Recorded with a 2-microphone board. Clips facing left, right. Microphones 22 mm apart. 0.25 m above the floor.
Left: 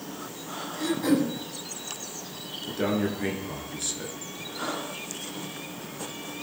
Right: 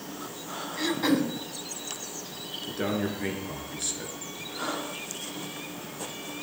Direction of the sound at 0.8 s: 40° right (ahead or behind).